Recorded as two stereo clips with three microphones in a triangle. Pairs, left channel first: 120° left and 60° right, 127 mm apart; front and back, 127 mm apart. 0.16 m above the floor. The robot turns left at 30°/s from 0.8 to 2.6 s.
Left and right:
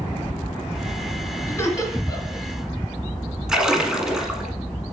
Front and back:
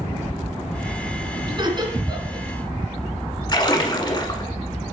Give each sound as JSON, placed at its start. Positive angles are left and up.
{"t": 1.5, "sound": "laughter", "azimuth_deg": 175, "distance_m": 1.9}
{"t": 3.5, "sound": "a splash", "azimuth_deg": 25, "distance_m": 1.2}